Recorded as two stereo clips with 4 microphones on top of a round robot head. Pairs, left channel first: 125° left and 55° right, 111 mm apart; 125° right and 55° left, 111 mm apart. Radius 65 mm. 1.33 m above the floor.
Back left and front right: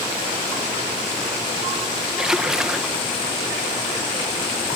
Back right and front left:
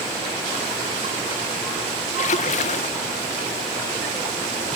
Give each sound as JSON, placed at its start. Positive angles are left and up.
{"t": 2.2, "sound": "a splash", "azimuth_deg": -140}